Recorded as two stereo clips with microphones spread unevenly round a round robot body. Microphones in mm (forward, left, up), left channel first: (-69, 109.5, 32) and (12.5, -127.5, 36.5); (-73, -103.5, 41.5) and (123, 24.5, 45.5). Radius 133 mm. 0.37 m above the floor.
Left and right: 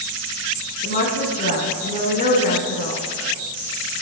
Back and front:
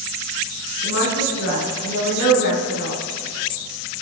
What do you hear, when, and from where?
0.8 s a woman speaking: 170° left, 3.5 m